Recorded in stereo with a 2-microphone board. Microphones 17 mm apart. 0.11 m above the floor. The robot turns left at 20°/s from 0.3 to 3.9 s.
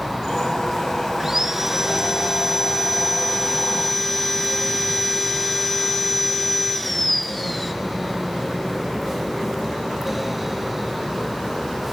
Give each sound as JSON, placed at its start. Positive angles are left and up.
{"t": 1.2, "sound": "sawing", "azimuth_deg": -140, "distance_m": 0.8}